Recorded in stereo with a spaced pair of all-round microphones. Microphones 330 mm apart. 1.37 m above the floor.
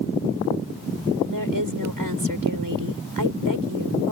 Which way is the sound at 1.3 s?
85° right.